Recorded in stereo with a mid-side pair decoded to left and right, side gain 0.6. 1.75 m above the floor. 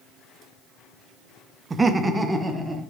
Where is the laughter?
25° right, 0.8 m; by 2.8 s 15° right, 1.9 m.